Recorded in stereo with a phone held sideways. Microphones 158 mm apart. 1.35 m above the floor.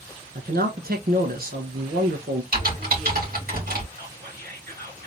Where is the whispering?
85° right, 2.5 m.